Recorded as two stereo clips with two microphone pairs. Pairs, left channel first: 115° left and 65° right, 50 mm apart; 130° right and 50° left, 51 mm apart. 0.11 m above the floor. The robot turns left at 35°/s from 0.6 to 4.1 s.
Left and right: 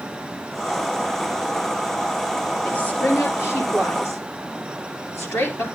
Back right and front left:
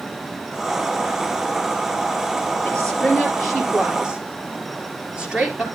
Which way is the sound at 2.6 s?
165° left.